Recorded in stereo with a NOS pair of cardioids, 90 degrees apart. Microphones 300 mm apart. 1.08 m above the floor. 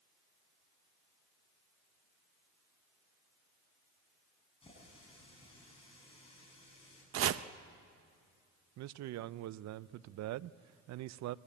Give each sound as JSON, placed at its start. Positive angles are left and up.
{"t": 4.6, "sound": "a running tap", "azimuth_deg": 20, "distance_m": 7.0}
{"t": 7.1, "sound": "chopping", "azimuth_deg": -50, "distance_m": 0.7}
{"t": 8.8, "sound": "a man speaking", "azimuth_deg": -65, "distance_m": 0.5}